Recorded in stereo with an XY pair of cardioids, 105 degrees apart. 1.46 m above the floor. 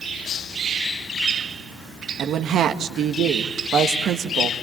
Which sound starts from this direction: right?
A woman speaking, at 2.2 s.